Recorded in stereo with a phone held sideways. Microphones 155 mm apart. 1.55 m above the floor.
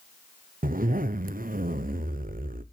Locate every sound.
0.6 s a zipper: 65° right (ahead or behind), 0.7 m